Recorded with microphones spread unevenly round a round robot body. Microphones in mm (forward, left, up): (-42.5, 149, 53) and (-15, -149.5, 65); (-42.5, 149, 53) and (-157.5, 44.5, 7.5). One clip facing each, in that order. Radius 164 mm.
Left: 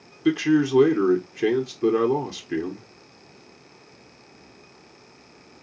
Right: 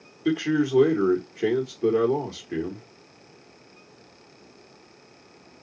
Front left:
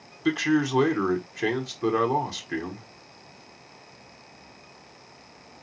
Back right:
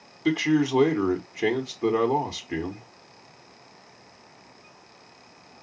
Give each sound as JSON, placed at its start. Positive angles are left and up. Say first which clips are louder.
{"t": 0.2, "sound": "a man speaking", "louder": "left 3 dB, back right 1 dB", "azimuth_deg": 160, "distance_m": 1.0}